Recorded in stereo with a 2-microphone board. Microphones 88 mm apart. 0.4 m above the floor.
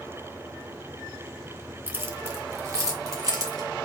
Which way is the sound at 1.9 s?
25° right (ahead or behind).